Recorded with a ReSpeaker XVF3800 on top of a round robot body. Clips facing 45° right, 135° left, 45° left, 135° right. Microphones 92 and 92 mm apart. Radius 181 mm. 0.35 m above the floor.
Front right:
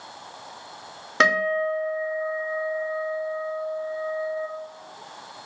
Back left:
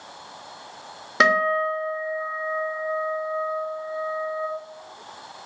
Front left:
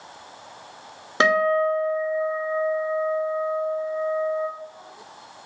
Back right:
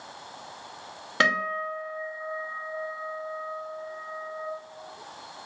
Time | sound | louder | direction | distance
1.2 | a guitar | back left 2 dB, front left 8 dB | 50° left | 1.2 m